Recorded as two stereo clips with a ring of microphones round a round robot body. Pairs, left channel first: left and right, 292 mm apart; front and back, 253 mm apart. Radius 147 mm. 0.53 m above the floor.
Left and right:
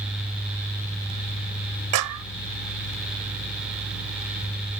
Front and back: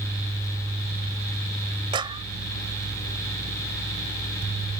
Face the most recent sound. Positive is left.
turn(degrees=-105)